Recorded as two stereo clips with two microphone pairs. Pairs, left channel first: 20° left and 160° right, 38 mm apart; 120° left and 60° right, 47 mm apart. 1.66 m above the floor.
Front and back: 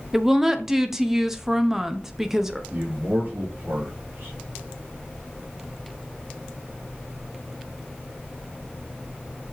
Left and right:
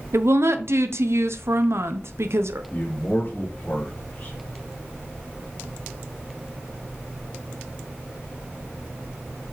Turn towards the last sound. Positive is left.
turn(degrees=175)